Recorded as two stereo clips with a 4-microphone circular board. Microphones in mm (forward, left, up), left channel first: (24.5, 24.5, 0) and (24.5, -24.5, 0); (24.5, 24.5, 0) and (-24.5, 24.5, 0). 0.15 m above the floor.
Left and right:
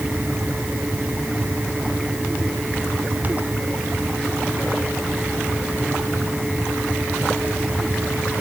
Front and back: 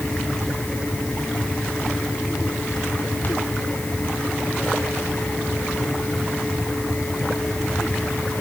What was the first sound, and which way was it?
Only background noise.